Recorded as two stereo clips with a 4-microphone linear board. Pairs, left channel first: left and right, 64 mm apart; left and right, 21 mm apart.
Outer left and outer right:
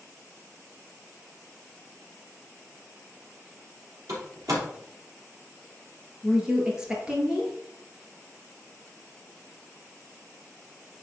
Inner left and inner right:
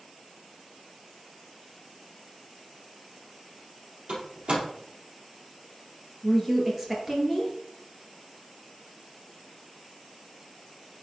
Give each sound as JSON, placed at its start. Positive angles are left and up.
{"t": 4.1, "sound": "a door slam", "side_deg": -60, "distance_m": 3.0}
{"t": 6.2, "sound": "a woman speaking", "side_deg": -15, "distance_m": 2.5}